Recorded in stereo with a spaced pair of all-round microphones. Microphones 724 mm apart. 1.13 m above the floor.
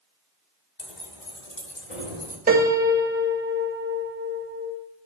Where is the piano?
10° right (ahead or behind), 2.5 m.